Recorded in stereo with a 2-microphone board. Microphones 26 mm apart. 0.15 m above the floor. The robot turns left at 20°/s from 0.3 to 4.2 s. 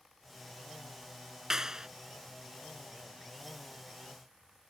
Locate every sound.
1.5 s a clap: 20° right (ahead or behind); by 1.9 s 25° right (ahead or behind)